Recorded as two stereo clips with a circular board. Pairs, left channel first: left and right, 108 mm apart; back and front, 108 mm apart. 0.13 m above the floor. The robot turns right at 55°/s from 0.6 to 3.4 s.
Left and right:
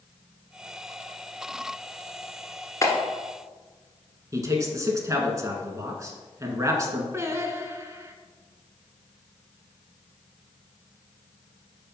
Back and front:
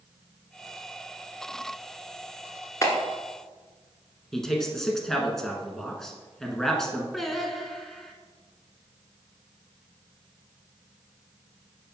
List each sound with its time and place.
2.8 s a clap: 135° left, 1.4 m; by 2.9 s 140° left, 1.4 m
4.3 s a man speaking: 100° right, 1.3 m
7.1 s singing: 95° right, 0.8 m